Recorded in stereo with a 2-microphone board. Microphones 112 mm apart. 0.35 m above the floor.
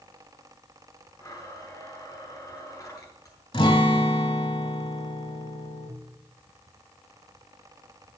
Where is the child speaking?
I don't hear a child speaking.